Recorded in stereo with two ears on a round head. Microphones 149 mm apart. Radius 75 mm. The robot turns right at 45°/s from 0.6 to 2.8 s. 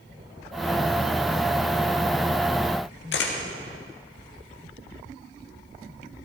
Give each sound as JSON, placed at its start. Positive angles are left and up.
{"t": 3.1, "sound": "a camera shutter", "side_deg": 70, "distance_m": 2.0}